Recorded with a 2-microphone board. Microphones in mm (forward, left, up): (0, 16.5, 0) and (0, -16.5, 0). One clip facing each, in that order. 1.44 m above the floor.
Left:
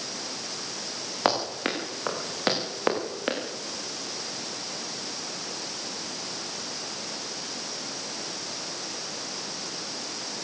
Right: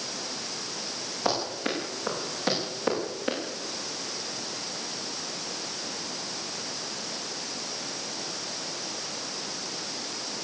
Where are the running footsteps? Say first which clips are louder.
Left 3 dB; 55° left (ahead or behind), 9 m; by 3.4 s 40° left (ahead or behind), 8.5 m.